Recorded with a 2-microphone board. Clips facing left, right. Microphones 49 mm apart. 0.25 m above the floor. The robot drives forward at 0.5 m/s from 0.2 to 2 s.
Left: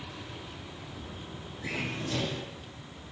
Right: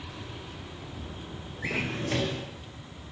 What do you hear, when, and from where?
1.6 s a drawer: 60° right (ahead or behind), 2 m; by 2.5 s 65° right (ahead or behind), 2 m